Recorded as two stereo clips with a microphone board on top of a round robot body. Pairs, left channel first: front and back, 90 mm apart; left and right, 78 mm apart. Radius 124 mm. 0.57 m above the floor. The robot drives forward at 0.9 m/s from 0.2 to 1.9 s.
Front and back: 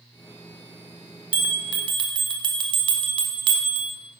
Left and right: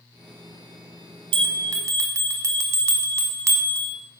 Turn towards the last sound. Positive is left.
turn(degrees=-140)